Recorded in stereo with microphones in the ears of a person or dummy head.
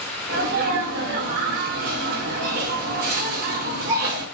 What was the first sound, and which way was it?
A sneeze, 55° right (ahead or behind).